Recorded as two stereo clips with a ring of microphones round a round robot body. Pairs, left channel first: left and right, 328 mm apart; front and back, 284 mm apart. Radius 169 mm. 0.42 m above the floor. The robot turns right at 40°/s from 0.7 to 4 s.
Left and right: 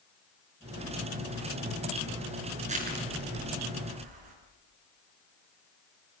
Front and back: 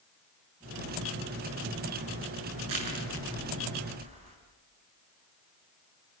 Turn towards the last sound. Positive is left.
turn(degrees=-110)